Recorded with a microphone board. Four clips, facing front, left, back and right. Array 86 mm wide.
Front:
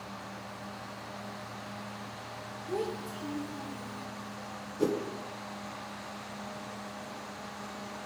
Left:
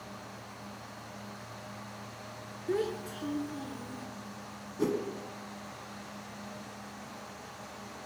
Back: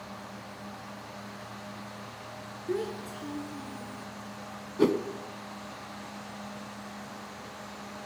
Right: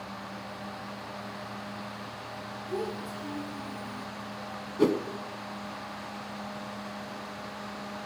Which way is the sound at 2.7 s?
125° left.